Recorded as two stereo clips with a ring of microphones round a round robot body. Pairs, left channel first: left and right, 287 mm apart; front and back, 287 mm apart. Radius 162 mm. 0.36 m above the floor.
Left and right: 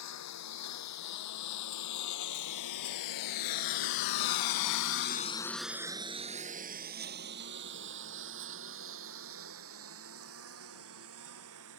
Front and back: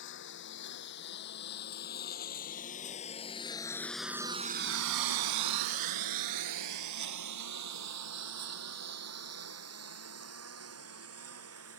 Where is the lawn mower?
55° left; by 11.8 s 140° right.